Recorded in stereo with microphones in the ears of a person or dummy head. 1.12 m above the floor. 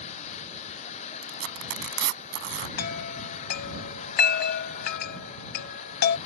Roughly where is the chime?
Left.